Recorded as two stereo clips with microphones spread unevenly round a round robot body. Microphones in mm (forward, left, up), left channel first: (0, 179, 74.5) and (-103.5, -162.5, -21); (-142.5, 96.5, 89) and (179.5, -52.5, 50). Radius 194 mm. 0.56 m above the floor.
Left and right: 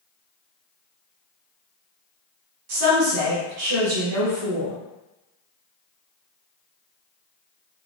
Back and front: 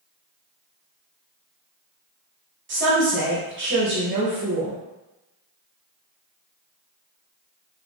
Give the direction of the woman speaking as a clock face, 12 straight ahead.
3 o'clock.